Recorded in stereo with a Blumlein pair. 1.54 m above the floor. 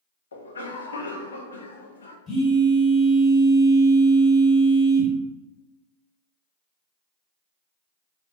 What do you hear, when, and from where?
0.3 s a cough: 70° left, 0.6 m
2.3 s a phone buzzing: 15° left, 1.4 m